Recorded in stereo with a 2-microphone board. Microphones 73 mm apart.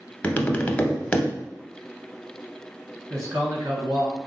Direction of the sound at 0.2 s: 15° left (ahead or behind).